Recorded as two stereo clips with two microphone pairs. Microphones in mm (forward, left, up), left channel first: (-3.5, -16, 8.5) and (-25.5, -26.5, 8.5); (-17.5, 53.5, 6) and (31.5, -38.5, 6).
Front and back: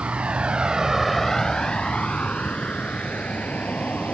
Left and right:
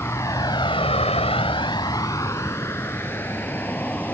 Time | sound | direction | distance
0.0 | a vehicle | 175° right | ?